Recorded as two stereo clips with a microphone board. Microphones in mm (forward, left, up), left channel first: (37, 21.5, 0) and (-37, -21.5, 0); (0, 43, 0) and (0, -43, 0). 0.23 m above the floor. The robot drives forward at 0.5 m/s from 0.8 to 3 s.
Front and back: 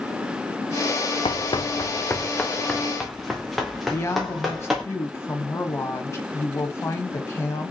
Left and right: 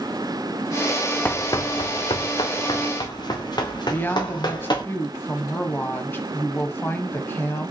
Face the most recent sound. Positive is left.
turn(degrees=50)